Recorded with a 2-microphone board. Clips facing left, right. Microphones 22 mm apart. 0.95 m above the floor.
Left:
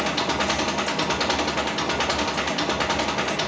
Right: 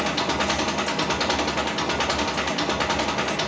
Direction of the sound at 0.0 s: 5° left (ahead or behind).